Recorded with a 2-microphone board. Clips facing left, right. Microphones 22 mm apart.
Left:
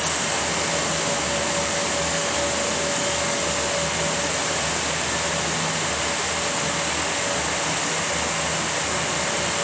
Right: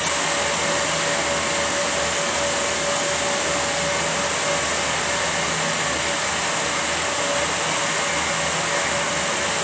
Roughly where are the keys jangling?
I don't hear keys jangling.